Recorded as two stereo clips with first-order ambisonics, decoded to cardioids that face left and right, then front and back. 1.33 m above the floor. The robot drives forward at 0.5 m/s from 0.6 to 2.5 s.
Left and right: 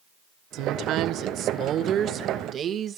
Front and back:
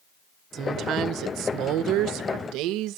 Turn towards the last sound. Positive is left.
turn(degrees=-150)